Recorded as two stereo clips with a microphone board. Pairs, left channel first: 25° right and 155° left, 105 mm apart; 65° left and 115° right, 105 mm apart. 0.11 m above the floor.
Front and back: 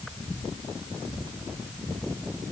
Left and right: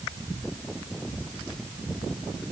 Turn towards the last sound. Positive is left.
No sound to turn to.